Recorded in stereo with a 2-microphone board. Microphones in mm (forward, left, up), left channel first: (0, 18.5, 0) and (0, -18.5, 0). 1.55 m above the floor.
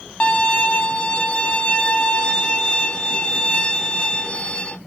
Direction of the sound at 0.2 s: 30° left (ahead or behind).